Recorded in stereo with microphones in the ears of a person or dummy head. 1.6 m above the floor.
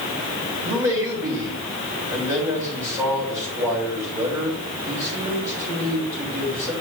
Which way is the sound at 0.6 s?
15° right (ahead or behind).